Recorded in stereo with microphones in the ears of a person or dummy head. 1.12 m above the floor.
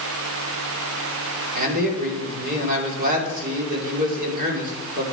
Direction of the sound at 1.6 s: 50° right (ahead or behind).